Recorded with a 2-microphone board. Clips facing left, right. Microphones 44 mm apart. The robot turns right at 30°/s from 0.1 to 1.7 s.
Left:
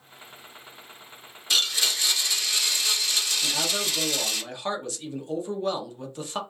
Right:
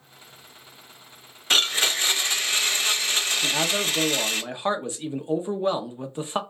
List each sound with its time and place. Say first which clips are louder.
1.5 s a blender: right 3 dB; 45° right (ahead or behind), 0.5 m; by 4.4 s 40° right (ahead or behind), 0.5 m
3.4 s a man speaking: right 3 dB; 25° right (ahead or behind), 0.9 m